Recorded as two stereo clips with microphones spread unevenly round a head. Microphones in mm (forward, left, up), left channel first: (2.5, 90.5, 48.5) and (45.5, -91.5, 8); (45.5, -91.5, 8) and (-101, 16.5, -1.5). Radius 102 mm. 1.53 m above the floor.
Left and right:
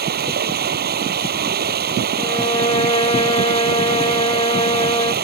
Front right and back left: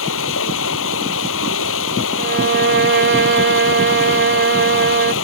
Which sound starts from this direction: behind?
A violin, at 2.2 s.